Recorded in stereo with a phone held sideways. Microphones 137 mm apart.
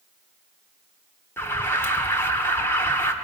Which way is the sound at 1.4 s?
15° left (ahead or behind).